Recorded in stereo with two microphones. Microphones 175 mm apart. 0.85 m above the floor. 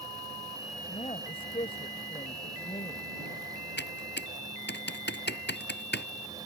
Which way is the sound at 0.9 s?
30° left (ahead or behind).